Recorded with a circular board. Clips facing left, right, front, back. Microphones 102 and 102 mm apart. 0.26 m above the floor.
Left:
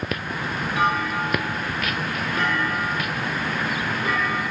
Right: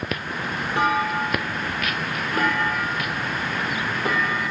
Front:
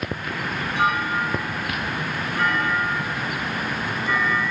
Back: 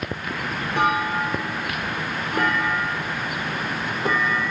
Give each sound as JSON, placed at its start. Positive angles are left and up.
{"t": 0.8, "sound": "a clunk", "azimuth_deg": -145, "distance_m": 3.5}